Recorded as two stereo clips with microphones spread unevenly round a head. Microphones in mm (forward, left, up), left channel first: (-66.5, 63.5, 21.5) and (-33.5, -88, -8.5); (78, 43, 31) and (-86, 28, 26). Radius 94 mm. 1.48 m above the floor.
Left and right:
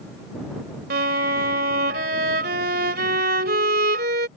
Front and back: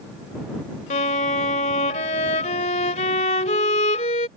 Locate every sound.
0.9 s a violin: 45° right